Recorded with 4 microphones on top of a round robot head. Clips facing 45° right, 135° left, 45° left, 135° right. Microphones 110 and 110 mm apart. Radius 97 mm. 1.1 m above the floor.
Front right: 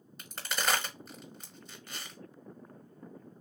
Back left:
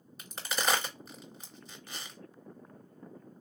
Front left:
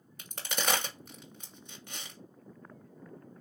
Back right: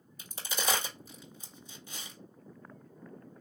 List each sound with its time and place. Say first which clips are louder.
0.2 s a crack: back left 1 dB, front left 1 dB; 45° left, 1.4 m